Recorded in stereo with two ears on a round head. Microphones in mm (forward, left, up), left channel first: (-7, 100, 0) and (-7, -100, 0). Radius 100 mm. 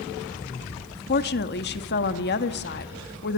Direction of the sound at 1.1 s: 50° left (ahead or behind).